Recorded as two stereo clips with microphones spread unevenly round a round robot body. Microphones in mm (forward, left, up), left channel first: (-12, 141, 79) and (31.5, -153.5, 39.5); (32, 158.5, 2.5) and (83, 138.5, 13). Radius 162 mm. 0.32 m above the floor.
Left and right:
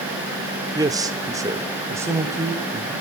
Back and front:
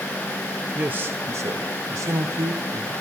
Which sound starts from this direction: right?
A man speaking, at 0.8 s.